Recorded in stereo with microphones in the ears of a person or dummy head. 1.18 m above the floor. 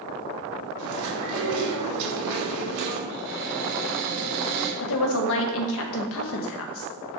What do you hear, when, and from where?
0.8 s chewing: 65° right (ahead or behind), 1.6 m
3.1 s a cupboard door: 60° right (ahead or behind), 1.1 m
4.8 s a woman speaking: 75° left (ahead or behind), 0.6 m